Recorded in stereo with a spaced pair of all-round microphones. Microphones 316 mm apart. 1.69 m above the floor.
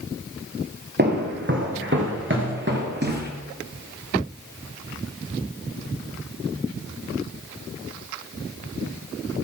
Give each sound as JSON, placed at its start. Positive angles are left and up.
{"t": 1.0, "sound": "footsteps", "side_deg": -35, "distance_m": 2.0}